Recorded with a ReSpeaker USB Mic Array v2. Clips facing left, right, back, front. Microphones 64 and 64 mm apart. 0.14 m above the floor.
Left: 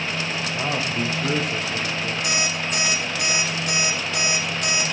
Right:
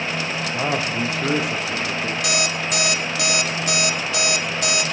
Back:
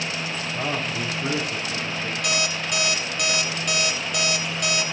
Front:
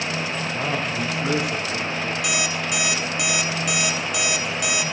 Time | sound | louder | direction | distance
0.5 | a man speaking | right 3 dB, front 1 dB | 90° right | 7.5 m
2.2 | an alarm clock | right 2 dB, front 1 dB | 85° right | 1.9 m